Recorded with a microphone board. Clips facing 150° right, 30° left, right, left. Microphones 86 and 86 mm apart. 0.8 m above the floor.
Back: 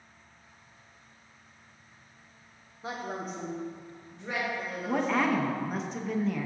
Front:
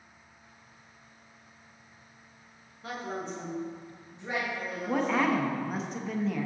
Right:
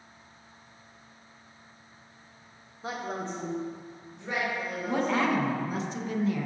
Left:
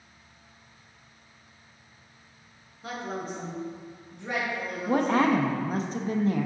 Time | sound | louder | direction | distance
2.8 | a woman speaking | even, even | 115° right | 1.0 m
4.9 | a woman speaking | even, left 4 dB | 120° left | 0.6 m